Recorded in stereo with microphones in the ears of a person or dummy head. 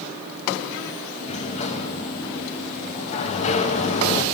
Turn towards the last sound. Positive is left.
turn(degrees=40)  # may be behind; listen again after turning